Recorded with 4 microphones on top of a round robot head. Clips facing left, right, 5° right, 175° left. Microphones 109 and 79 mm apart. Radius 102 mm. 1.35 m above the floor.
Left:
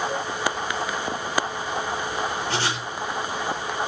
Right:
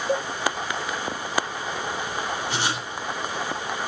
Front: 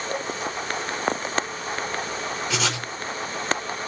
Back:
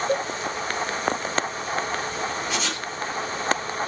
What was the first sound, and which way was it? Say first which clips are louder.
A cowbell: right 4 dB, back 5 dB; 125° right.